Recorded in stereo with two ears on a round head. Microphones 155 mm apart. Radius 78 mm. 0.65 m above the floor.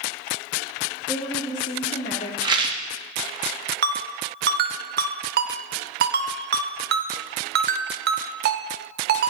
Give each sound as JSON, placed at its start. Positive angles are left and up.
{"t": 1.1, "sound": "a woman speaking", "side_deg": 15, "distance_m": 1.2}
{"t": 2.4, "sound": "a rattle", "side_deg": -25, "distance_m": 0.6}
{"t": 3.8, "sound": "a ringtone", "side_deg": -65, "distance_m": 0.7}